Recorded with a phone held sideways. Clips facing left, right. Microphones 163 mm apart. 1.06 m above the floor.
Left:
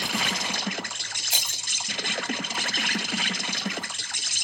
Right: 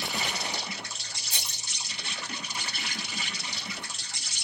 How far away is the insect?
About 0.8 m.